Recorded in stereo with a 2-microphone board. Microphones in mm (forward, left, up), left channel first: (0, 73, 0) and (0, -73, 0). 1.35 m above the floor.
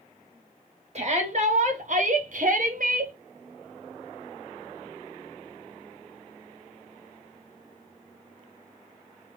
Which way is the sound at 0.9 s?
50° right (ahead or behind).